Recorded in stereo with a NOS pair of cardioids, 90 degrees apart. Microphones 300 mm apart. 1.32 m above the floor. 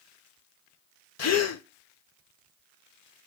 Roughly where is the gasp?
Ahead left.